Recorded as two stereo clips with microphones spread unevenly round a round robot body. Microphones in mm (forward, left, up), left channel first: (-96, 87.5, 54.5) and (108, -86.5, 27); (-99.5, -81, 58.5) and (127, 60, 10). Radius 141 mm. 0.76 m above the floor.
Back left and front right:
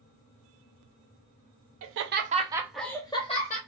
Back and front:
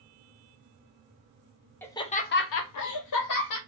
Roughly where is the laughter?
Ahead right.